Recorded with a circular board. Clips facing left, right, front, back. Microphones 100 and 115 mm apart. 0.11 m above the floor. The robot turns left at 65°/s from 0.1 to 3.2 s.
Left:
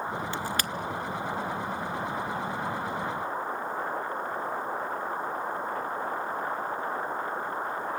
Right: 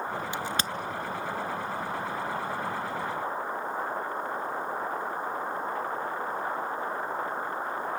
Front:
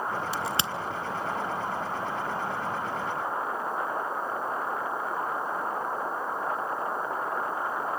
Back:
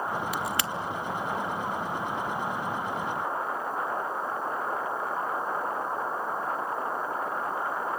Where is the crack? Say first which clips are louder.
Even, even; 30° right, 0.7 m; by 0.7 s 55° right, 0.7 m.